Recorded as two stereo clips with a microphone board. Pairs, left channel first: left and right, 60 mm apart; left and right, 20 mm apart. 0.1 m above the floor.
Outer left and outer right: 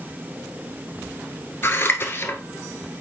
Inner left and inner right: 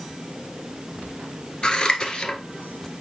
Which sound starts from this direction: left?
Scissors, at 1.6 s.